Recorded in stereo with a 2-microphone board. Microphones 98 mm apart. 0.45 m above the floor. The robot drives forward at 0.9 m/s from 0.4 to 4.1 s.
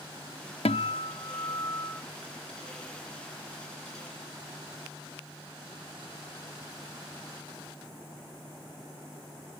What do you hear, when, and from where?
0.7 s a guitar: 80° left, 0.6 m; by 2.0 s 25° left (ahead or behind), 1.4 m